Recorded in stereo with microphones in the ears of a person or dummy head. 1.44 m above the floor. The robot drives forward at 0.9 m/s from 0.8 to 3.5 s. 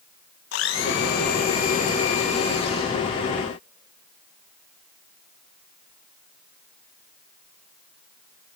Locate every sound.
0.5 s a blender: 65° left (ahead or behind), 1.6 m; by 3.0 s 30° left (ahead or behind), 3 m